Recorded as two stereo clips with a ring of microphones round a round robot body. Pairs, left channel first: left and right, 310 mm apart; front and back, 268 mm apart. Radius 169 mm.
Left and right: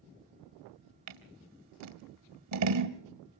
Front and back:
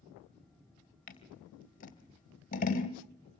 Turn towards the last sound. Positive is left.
turn(degrees=-60)